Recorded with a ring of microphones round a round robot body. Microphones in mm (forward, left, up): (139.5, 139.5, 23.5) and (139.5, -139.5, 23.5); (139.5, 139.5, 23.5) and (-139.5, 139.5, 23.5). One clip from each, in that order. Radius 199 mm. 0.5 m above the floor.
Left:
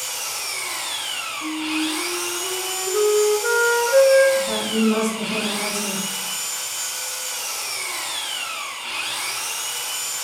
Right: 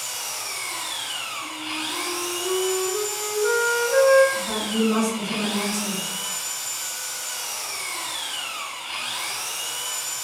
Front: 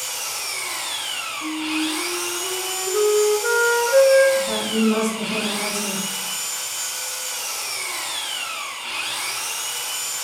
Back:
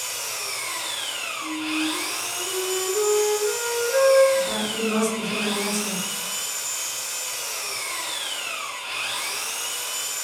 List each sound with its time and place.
0.0 s an engine running: 70° left, 0.9 m
1.4 s a flute: 35° left, 0.9 m
4.3 s a woman speaking: 155° right, 1.6 m